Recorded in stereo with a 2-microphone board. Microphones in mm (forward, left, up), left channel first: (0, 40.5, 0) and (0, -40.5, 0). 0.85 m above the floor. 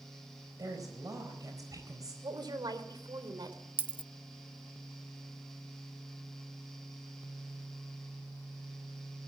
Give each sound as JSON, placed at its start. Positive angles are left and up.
{"t": 0.6, "sound": "a woman speaking", "side_deg": -45, "distance_m": 4.0}
{"t": 2.2, "sound": "a woman speaking", "side_deg": -60, "distance_m": 3.5}
{"t": 3.8, "sound": "a dropped coin", "side_deg": -20, "distance_m": 0.8}